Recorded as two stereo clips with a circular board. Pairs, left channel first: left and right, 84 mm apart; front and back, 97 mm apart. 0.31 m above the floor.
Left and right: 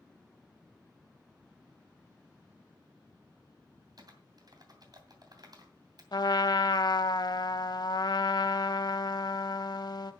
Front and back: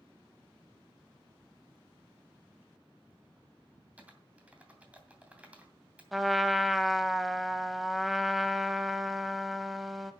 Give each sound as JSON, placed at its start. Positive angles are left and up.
{"t": 4.0, "sound": "typing on a keyboard", "azimuth_deg": -105, "distance_m": 2.5}
{"t": 6.1, "sound": "a trumpet", "azimuth_deg": 90, "distance_m": 0.8}